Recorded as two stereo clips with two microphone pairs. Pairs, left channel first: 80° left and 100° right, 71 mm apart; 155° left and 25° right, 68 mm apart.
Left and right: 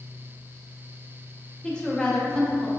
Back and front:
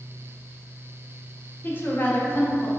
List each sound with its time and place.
1.6 s a woman speaking: 150° left, 0.7 m